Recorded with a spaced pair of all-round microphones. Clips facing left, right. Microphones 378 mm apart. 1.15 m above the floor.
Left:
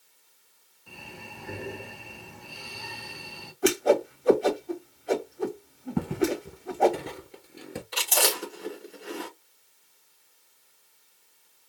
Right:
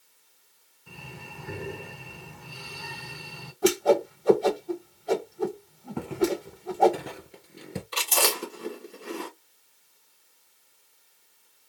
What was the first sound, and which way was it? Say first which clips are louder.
Breathing: even; 30° right (ahead or behind).